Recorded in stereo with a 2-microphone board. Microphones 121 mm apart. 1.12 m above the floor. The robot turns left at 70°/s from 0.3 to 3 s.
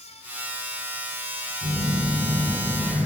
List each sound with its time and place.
1.6 s a phone buzzing: 125° right, 5.5 m; by 3.1 s 135° left, 5.5 m